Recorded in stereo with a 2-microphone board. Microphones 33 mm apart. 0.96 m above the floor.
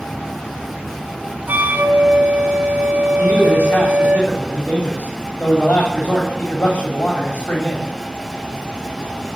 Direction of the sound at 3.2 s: 70° left (ahead or behind).